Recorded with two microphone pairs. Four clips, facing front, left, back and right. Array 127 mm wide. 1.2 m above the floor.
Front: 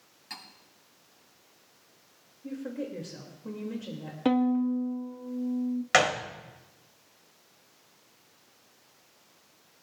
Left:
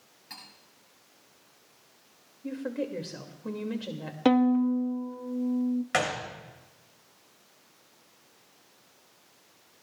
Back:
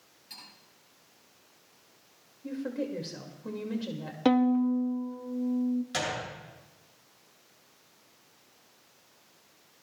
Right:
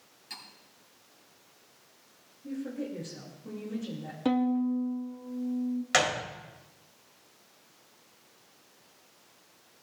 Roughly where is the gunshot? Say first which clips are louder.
Right 1 dB, front 9 dB; ahead.